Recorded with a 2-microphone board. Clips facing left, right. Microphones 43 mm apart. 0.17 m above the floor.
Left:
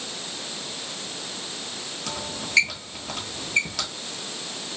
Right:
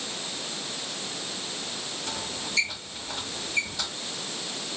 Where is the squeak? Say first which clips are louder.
Left 3 dB; 75° left (ahead or behind), 1.0 m.